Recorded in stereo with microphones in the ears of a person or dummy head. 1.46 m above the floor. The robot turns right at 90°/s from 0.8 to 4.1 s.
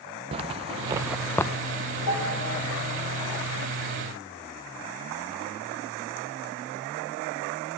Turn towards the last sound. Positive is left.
turn(degrees=-65)